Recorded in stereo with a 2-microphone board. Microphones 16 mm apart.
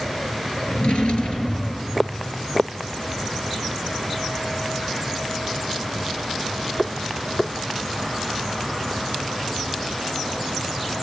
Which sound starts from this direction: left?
A drawer, at 0.7 s.